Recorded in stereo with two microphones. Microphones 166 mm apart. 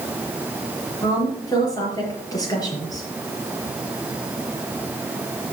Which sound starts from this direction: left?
A woman speaking, at 1.0 s.